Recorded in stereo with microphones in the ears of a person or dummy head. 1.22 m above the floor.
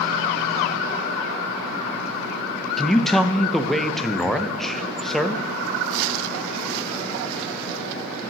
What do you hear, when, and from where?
2.8 s a man speaking: centre (ahead or behind), 0.5 m